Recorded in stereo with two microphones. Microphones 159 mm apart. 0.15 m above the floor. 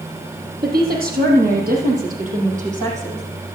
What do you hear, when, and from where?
0.6 s a woman speaking: 75° right (ahead or behind), 4 m; by 3.5 s 40° right (ahead or behind), 6 m